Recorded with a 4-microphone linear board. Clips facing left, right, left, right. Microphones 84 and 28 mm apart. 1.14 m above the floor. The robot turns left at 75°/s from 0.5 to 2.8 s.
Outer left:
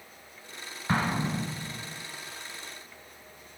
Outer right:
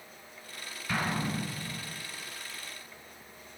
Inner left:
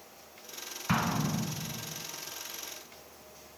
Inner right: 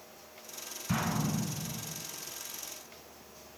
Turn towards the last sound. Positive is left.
turn(degrees=-100)